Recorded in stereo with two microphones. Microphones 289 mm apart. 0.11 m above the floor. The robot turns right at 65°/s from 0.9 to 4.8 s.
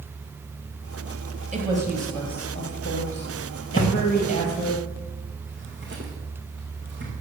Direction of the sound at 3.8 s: 30° left (ahead or behind).